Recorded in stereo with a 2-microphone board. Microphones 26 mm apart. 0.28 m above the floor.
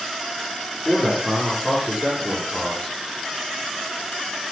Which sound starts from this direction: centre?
A man speaking, at 0.8 s.